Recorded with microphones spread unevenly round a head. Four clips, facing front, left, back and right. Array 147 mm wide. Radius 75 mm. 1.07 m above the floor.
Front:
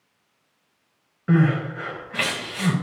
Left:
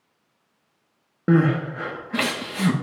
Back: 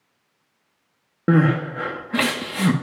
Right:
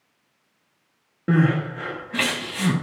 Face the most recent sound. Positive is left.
turn(degrees=150)